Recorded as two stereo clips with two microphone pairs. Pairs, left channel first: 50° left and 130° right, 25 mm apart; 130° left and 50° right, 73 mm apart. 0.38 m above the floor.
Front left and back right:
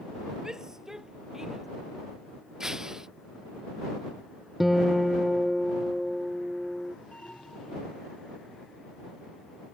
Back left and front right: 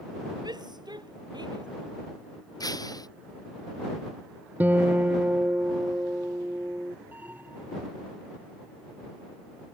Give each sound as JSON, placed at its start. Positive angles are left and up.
{"t": 0.4, "sound": "a shout", "azimuth_deg": -70}
{"t": 2.6, "sound": "breaking glass", "azimuth_deg": 160}
{"t": 4.6, "sound": "a guitar", "azimuth_deg": -65}
{"t": 7.1, "sound": "an alarm", "azimuth_deg": 15}